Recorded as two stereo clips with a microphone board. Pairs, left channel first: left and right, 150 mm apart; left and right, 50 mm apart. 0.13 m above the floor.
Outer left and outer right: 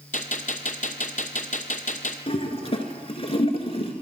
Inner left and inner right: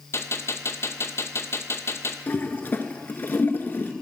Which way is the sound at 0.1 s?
60° left (ahead or behind).